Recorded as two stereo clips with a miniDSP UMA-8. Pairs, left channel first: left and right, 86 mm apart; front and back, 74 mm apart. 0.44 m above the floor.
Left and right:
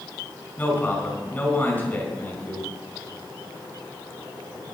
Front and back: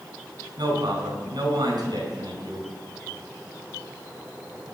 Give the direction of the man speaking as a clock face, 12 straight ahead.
7 o'clock.